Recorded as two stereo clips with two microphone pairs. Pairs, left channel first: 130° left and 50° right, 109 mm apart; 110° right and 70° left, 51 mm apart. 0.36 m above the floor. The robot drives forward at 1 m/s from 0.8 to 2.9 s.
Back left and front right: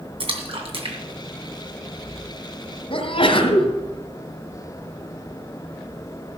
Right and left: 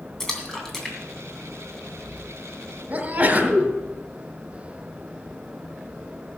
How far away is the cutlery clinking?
No cutlery clinking in this recording.